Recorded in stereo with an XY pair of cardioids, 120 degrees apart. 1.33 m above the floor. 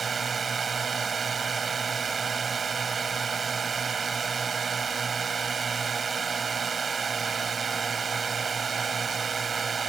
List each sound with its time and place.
0.0 s a drone: 30° right